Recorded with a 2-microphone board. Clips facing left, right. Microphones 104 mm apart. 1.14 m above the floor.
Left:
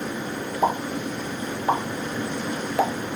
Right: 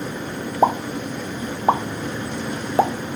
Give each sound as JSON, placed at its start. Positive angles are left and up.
{"t": 0.6, "sound": "a pop", "side_deg": -30, "distance_m": 0.7}